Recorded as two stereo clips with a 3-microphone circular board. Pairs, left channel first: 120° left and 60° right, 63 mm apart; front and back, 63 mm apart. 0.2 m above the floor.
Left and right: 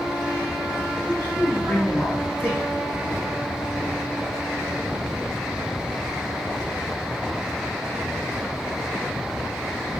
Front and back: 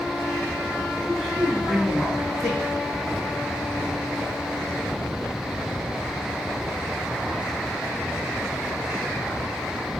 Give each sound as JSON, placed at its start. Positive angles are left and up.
{"t": 1.1, "sound": "a man speaking", "azimuth_deg": 80, "distance_m": 1.6}